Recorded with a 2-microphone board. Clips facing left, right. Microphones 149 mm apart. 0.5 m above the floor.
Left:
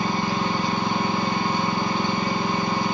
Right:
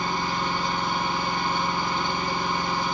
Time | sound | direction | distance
0.0 | an engine running | 80° left | 5 m